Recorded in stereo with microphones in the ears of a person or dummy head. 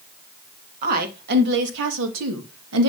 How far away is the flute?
No flute in this recording.